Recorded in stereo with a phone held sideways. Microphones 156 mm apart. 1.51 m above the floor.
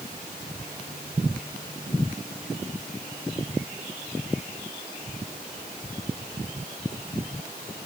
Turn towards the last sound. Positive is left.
No sound to turn to.